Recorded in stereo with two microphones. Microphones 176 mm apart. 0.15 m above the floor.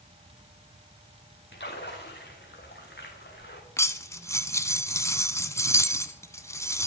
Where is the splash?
80° left, 4 m.